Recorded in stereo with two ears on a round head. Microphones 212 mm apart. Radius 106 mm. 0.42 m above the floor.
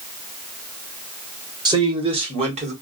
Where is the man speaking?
20° right (ahead or behind), 1.6 m; by 2.7 s 30° right (ahead or behind), 2 m.